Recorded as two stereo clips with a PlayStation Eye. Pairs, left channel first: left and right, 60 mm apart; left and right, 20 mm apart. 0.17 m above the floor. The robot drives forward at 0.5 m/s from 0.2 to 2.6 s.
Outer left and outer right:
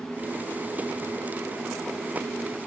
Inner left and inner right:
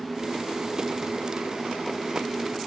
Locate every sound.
Only background noise.